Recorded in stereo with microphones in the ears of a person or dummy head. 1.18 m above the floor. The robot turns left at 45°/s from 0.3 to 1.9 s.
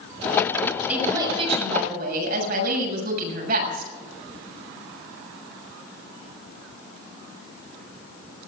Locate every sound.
0.9 s a woman speaking: 10° right, 7 m; by 3.9 s 55° right, 7 m